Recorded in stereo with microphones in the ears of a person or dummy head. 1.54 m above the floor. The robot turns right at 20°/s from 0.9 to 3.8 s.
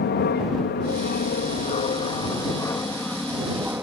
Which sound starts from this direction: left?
An aircraft, at 0.0 s.